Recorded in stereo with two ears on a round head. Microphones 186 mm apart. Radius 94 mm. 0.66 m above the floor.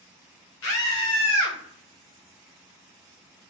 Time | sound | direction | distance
0.6 | a scream | 70° left (ahead or behind) | 1.6 m